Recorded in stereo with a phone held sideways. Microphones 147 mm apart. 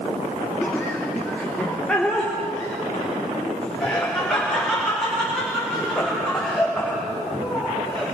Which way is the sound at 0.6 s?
15° left (ahead or behind).